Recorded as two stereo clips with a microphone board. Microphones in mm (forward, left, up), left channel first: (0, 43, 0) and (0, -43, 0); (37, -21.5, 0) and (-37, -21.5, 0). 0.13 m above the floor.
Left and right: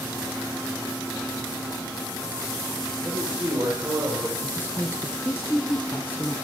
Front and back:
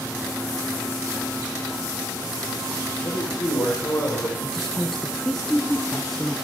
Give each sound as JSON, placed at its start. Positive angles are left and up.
{"t": 3.0, "sound": "a man speaking", "azimuth_deg": -25, "distance_m": 6.0}
{"t": 4.4, "sound": "a woman speaking", "azimuth_deg": 80, "distance_m": 1.2}